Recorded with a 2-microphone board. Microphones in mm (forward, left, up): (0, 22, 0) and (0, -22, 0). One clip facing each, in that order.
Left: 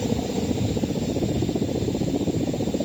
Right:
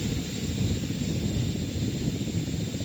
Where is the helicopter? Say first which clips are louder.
Left 7 dB; 65° left (ahead or behind); by 2.9 s 60° left (ahead or behind).